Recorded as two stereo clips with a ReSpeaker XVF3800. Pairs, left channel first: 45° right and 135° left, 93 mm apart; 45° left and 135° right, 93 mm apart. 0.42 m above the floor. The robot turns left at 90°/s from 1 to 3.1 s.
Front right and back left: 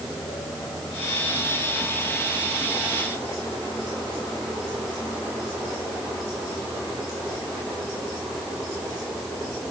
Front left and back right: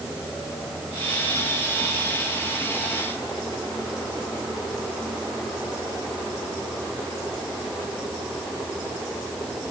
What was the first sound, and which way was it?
Only background noise.